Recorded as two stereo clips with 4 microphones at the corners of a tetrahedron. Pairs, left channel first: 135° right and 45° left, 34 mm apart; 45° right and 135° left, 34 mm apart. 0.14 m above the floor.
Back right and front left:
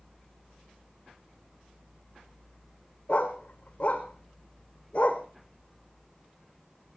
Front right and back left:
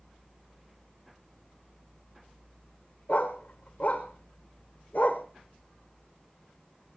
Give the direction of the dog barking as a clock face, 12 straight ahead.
3 o'clock.